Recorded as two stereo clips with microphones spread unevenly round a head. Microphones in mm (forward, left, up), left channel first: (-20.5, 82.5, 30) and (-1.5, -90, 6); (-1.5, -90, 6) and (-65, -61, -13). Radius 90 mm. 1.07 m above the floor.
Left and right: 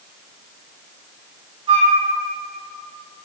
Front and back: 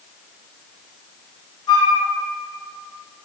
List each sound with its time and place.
1.7 s a flute: 30° right, 1.5 m